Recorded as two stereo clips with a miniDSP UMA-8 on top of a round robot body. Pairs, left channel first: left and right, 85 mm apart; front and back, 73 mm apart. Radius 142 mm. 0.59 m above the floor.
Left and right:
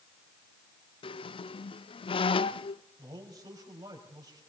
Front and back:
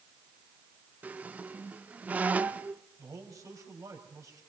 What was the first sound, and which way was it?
A squeak, 110° left.